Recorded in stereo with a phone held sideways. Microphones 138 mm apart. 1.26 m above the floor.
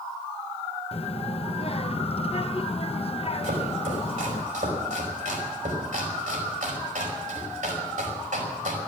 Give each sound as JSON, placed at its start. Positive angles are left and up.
{"t": 0.9, "sound": "a child speaking", "side_deg": 50, "distance_m": 0.8}
{"t": 3.4, "sound": "chopping", "side_deg": -80, "distance_m": 5.0}